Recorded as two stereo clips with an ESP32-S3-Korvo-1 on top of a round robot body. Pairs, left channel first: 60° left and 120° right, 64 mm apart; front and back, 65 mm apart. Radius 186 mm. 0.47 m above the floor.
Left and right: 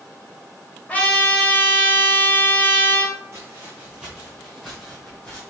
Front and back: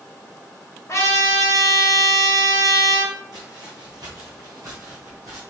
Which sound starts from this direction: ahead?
A trumpet, at 0.9 s.